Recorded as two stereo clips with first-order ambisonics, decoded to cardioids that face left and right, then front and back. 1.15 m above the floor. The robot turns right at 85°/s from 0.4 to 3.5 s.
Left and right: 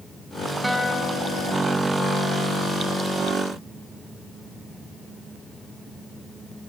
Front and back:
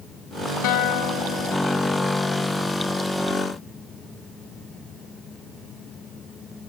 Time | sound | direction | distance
0.6 | a guitar | 5° right | 0.9 m